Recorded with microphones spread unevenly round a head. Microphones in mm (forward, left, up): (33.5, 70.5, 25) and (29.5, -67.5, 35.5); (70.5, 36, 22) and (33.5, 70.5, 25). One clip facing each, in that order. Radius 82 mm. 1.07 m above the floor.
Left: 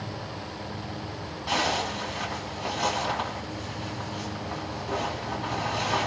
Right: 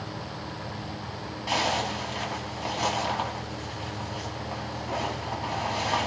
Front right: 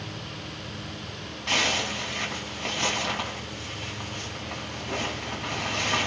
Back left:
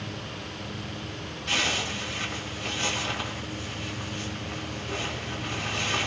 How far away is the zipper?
About 5 m.